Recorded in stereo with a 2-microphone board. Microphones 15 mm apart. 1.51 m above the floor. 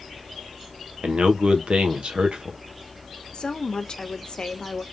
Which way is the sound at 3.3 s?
50° left (ahead or behind).